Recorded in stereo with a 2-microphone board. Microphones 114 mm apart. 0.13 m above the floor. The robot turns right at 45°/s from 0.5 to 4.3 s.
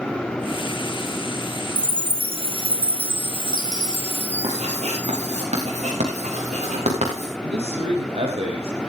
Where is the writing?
75° right (ahead or behind), 6.5 m.